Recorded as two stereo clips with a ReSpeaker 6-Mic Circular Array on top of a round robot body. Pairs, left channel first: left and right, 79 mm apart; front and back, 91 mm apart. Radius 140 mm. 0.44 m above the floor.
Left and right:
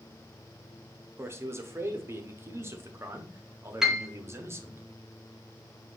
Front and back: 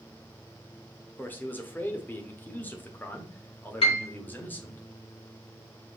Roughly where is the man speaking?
Ahead right.